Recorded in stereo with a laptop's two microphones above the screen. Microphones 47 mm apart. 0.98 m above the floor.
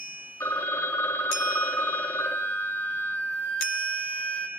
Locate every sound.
0.4 s a phone ringing: 80° left, 0.9 m
2.2 s a flute: 40° left (ahead or behind), 0.5 m